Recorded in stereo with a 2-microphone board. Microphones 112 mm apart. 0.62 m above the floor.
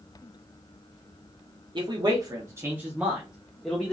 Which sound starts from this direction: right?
A man speaking, at 1.8 s.